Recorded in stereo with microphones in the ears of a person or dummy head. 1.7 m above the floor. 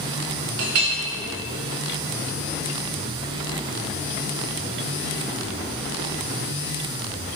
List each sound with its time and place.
0.6 s a clink: 45° right (ahead or behind), 1.0 m